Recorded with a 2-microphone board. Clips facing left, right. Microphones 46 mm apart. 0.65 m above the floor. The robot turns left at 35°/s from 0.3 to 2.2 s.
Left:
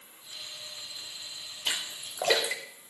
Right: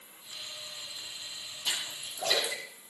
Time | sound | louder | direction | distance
1.6 | a splash | left 2 dB | 55° left (ahead or behind) | 2.5 m